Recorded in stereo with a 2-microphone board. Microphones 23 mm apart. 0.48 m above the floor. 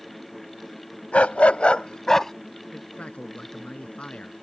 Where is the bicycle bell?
No bicycle bell in this recording.